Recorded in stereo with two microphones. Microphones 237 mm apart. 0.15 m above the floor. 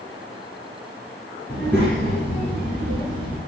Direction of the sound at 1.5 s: 15° left (ahead or behind).